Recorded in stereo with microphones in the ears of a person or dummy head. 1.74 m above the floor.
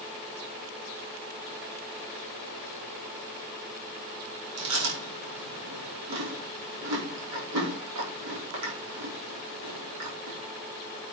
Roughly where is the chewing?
Right.